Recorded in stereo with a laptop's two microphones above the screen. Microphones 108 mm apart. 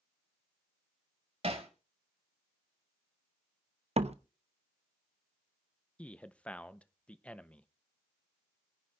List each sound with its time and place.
1.4 s hammering: 70° right (ahead or behind), 2.5 m
4.0 s a door slam: 75° right (ahead or behind), 0.7 m
6.0 s a man speaking: 10° left (ahead or behind), 0.7 m